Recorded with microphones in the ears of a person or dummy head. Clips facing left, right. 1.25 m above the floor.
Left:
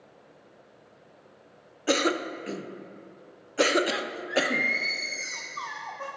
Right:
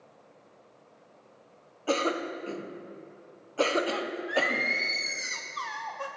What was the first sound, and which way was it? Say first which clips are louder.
A cough: left 3 dB; 15° left (ahead or behind).